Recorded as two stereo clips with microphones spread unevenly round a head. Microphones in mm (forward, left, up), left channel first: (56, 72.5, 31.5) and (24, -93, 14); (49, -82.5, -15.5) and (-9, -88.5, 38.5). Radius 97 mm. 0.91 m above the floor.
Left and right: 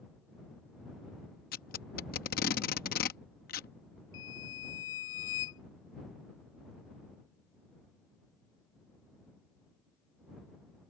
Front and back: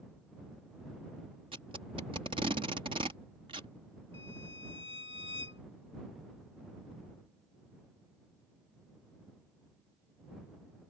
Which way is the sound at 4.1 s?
80° left.